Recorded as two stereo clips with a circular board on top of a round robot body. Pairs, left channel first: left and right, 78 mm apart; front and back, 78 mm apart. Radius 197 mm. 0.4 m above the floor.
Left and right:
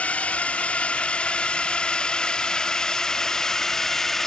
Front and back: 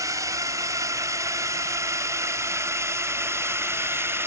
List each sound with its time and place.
0.0 s a drone: 160° left; by 4.3 s 170° left